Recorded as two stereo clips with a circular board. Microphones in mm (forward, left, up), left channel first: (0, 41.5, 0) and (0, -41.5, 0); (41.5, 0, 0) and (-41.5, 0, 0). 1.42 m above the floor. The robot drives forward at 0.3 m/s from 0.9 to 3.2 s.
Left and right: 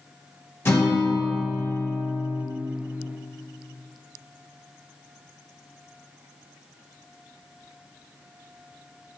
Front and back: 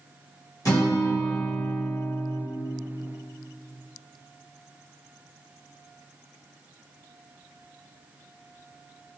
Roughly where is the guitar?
Ahead left.